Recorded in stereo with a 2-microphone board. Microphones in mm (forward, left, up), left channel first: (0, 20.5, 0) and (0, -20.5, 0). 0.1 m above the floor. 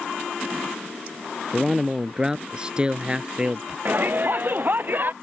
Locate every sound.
1.5 s a man speaking: 5° right (ahead or behind); by 3.8 s 25° right (ahead or behind)
3.9 s a shout: 45° right (ahead or behind)